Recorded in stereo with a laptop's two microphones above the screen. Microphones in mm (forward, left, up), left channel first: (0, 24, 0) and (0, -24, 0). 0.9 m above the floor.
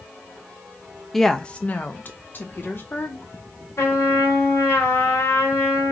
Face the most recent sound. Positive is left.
turn(degrees=75)  # may be behind; listen again after turning